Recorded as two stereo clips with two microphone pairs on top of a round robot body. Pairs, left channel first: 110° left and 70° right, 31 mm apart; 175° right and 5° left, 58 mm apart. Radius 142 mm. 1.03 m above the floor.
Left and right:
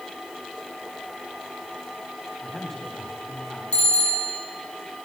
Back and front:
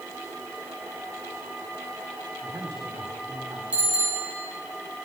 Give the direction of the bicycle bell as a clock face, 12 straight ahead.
9 o'clock.